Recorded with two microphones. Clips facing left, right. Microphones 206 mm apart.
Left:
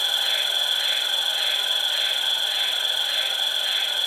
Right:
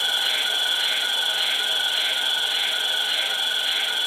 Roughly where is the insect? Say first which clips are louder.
Right 1 dB; right.